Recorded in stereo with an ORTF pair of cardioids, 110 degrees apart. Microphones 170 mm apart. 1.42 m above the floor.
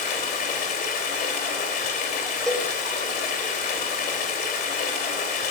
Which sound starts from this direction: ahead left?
Running water, at 0.0 s.